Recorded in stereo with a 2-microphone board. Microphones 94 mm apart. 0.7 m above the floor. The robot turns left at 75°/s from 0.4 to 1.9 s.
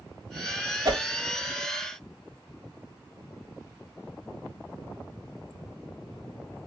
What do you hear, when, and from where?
0.8 s a whoosh: 40° right (ahead or behind), 1.2 m; by 1.0 s 30° right (ahead or behind), 1.2 m